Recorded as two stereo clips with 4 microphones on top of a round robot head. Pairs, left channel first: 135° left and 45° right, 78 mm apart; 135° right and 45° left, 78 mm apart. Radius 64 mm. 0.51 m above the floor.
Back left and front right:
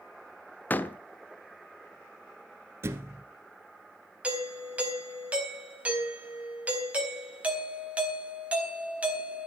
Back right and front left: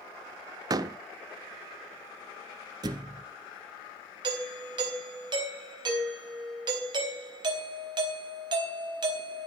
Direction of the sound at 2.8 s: 10° left.